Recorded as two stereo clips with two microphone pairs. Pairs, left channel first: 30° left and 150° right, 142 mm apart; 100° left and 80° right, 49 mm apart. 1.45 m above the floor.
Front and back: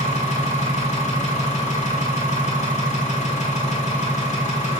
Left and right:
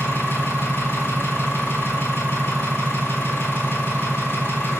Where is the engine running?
60° left, 2 m.